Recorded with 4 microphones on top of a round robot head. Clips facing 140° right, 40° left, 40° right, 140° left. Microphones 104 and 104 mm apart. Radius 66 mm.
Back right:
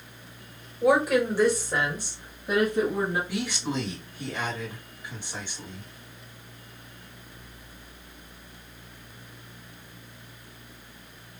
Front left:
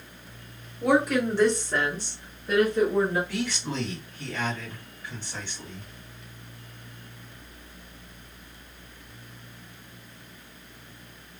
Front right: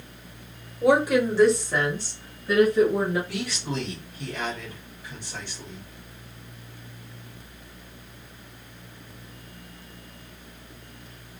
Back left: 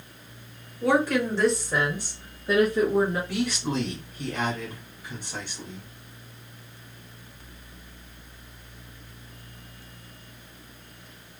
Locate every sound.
0.8 s a woman speaking: 55° right, 1.2 m; by 3.2 s 160° left, 1.5 m
3.3 s a man speaking: 150° left, 1.7 m